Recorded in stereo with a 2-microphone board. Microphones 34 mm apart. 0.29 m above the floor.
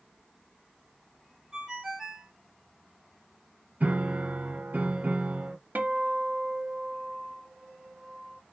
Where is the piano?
55° right (ahead or behind), 1.1 m.